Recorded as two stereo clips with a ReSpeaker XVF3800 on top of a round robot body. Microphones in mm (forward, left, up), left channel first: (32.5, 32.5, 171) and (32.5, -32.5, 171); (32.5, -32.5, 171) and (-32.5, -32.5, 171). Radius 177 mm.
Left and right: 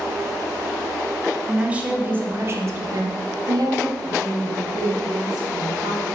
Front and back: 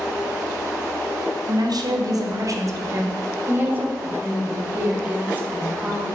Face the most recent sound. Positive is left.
turn(degrees=-115)